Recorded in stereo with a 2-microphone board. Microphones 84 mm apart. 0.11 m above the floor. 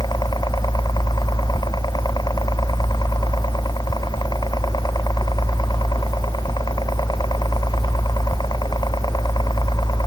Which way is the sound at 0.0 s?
55° left (ahead or behind).